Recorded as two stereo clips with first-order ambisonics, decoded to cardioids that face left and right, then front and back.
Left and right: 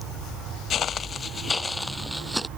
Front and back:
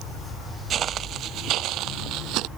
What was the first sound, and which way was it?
Footsteps, 130° left.